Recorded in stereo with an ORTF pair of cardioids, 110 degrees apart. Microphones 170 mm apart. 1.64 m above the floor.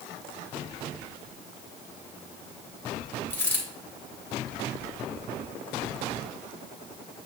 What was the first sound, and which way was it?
A dropped coin, 10° left.